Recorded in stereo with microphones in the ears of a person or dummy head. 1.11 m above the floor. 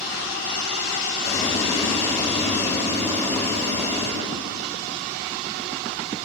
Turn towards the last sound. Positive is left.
turn(degrees=15)  # may be behind; listen again after turning